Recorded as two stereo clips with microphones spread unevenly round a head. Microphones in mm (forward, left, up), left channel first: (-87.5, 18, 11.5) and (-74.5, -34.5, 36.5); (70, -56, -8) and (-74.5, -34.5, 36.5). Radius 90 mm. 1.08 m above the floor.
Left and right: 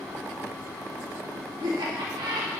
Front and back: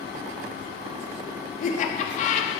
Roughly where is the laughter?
Ahead right.